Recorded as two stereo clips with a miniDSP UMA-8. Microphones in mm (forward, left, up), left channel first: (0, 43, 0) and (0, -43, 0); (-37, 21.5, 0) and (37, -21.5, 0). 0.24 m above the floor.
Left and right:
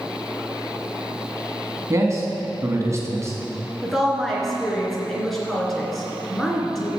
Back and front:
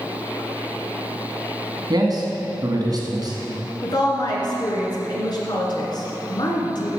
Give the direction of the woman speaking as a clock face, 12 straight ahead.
6 o'clock.